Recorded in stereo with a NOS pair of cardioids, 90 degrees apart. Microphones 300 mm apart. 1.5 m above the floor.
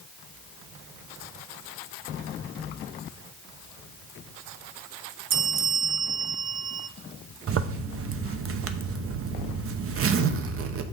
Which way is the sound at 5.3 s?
45° right.